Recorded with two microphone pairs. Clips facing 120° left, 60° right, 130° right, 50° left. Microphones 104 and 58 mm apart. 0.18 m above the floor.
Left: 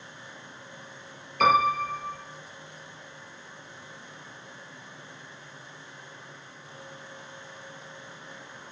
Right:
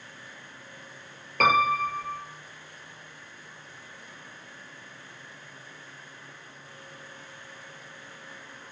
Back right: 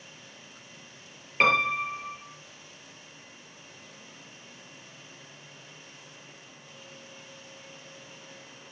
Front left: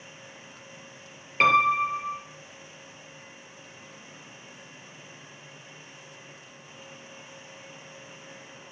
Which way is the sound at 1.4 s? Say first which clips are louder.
Left 1 dB, front left 3 dB; 45° right.